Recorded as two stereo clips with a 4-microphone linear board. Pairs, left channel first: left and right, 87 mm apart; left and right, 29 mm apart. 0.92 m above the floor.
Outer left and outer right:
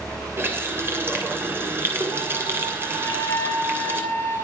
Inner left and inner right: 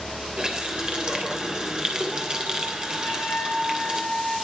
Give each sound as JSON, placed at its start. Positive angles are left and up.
{"t": 0.4, "sound": "a running tap", "side_deg": -25, "distance_m": 3.0}
{"t": 3.0, "sound": "a flute", "side_deg": 30, "distance_m": 8.5}